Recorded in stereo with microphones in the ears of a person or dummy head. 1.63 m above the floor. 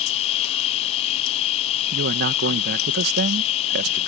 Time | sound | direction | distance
0.0 | an insect | 30° left (ahead or behind) | ?
1.9 | a man speaking | 55° right (ahead or behind) | ?